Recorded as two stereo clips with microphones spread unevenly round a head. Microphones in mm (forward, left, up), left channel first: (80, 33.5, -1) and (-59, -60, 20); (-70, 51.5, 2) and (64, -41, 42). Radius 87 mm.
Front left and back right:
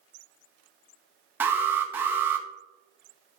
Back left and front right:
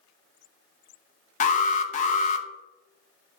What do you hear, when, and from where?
1.4 s an alarm: 130° left, 0.8 m